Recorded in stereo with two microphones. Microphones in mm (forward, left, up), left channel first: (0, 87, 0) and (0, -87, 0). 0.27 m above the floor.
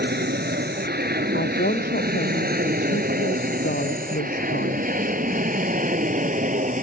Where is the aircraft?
70° right (ahead or behind); by 6.8 s 45° right (ahead or behind).